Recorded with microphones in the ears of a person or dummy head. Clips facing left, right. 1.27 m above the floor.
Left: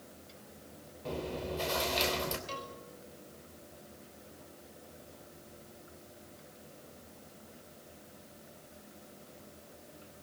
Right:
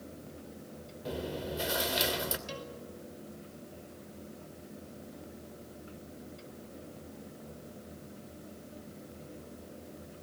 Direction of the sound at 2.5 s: 15° right (ahead or behind).